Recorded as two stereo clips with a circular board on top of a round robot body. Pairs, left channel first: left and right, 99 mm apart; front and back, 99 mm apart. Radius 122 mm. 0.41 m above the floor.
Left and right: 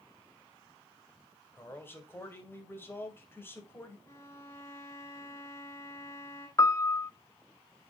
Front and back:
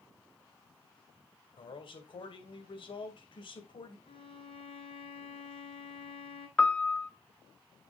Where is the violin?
25° left, 1.9 m.